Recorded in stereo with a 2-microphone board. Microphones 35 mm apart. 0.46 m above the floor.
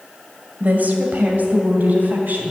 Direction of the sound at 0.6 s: 50° right (ahead or behind).